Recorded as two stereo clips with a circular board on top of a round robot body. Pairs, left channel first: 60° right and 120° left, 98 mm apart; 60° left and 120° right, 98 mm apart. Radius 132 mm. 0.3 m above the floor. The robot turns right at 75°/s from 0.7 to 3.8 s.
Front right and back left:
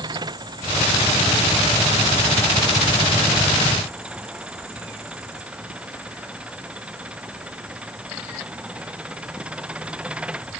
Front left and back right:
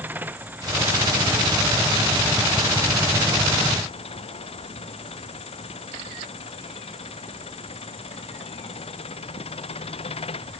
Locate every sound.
0.0 s an engine running: 170° left; by 10.6 s 40° left